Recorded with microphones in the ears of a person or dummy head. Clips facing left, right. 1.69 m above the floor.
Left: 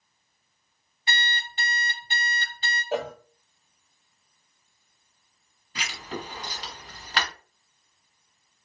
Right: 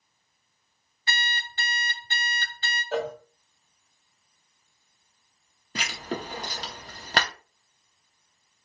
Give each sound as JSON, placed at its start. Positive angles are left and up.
{"t": 1.1, "sound": "an alarm clock", "side_deg": 20, "distance_m": 1.9}
{"t": 2.9, "sound": "a cowbell", "side_deg": 10, "distance_m": 0.5}
{"t": 5.8, "sound": "writing", "side_deg": -35, "distance_m": 0.7}